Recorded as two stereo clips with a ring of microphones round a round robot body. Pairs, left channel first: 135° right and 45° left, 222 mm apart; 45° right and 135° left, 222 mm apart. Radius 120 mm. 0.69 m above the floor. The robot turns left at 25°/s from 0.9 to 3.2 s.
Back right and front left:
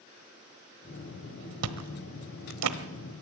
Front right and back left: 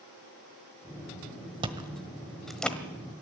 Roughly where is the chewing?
Ahead left.